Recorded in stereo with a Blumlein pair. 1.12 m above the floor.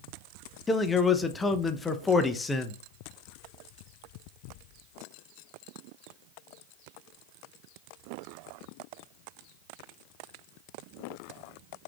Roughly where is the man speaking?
Ahead.